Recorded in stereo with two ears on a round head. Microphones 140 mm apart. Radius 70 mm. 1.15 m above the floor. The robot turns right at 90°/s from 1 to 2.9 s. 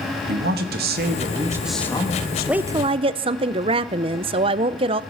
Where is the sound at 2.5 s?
175° right, 0.5 m; by 5.0 s 140° right, 0.5 m.